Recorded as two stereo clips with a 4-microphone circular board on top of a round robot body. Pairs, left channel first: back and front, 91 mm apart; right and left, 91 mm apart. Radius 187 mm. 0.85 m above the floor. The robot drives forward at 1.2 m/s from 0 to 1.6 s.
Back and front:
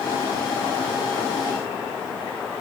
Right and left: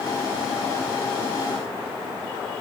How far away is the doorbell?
I don't hear a doorbell.